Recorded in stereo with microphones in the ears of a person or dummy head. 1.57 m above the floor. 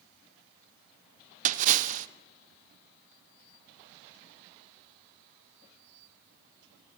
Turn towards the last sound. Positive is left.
turn(degrees=-45)  # may be behind; listen again after turning